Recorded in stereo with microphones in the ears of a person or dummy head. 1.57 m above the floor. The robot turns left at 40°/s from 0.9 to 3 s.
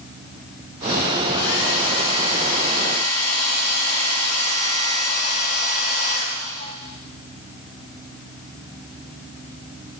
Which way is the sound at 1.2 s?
115° left.